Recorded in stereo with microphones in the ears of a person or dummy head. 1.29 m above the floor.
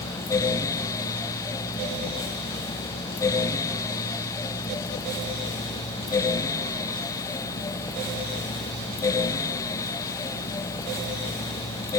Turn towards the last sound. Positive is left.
No sound to turn to.